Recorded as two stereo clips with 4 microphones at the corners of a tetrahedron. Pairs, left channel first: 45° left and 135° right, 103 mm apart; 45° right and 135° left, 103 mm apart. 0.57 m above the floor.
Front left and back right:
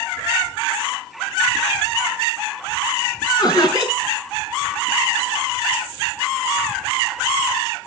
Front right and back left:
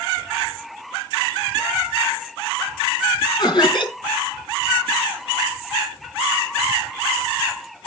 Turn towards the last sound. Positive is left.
turn(degrees=-5)